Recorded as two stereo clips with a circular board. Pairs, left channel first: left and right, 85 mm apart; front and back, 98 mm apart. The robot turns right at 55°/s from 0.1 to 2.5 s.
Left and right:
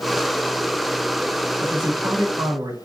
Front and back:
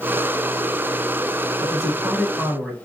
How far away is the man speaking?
About 1.0 m.